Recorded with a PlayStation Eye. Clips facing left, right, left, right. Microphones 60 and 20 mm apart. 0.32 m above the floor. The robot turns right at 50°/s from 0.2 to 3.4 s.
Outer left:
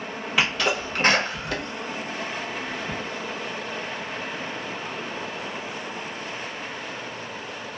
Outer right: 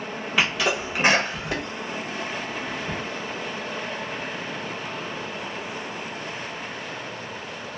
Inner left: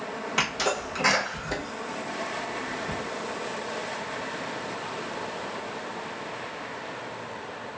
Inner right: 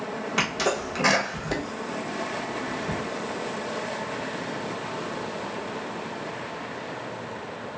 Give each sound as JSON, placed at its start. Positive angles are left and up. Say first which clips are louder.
{"t": 0.4, "sound": "a sneeze", "louder": "even, inner right 1 dB", "side_deg": 0, "distance_m": 1.0}